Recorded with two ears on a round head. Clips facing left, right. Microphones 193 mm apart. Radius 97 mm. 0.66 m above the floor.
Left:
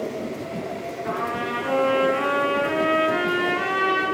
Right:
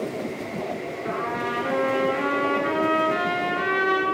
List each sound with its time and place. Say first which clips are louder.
1.0 s a trumpet: left 1 dB; 45° right (ahead or behind), 5.5 m